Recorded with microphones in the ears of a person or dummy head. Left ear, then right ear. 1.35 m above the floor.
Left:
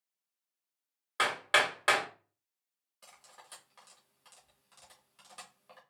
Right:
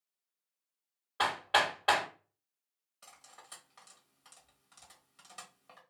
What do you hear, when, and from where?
1.2 s hammering: 65° left (ahead or behind), 2 m
3.0 s cutlery clinking: centre (ahead or behind), 0.9 m